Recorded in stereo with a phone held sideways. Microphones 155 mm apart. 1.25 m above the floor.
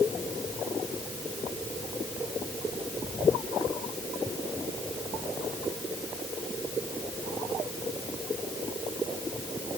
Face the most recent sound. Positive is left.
No sound to turn to.